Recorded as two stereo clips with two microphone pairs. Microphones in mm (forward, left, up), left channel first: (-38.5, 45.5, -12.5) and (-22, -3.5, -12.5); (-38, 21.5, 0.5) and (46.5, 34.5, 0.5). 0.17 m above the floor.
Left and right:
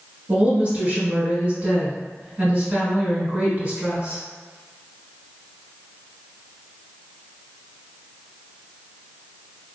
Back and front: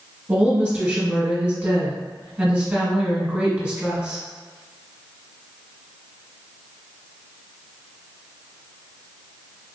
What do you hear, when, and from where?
0.3 s a woman speaking: 50° right, 1.6 m